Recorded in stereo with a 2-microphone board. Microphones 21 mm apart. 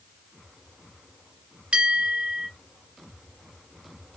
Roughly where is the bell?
Right.